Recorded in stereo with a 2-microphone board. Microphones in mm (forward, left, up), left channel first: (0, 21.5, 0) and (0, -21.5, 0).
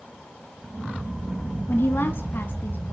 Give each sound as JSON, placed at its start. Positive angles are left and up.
{"t": 1.7, "sound": "a woman speaking", "side_deg": 55, "distance_m": 2.0}